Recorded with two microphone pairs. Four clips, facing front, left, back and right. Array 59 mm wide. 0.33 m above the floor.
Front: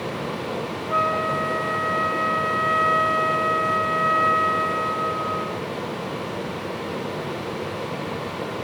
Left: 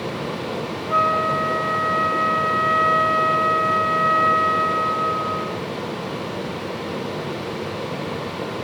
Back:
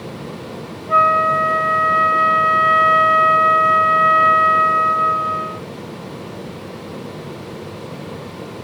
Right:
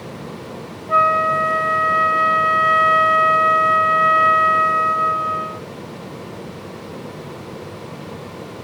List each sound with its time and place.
0.9 s a flute: 155° right, 1.0 m